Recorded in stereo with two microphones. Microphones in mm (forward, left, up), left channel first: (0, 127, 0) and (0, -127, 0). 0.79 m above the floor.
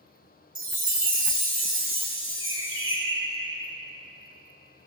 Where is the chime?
55° right (ahead or behind), 1.6 m.